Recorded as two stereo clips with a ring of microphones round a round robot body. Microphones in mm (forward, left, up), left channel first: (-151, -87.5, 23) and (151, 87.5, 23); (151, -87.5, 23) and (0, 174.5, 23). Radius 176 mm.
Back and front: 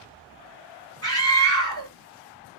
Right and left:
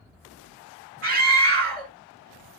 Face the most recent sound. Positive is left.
turn(degrees=140)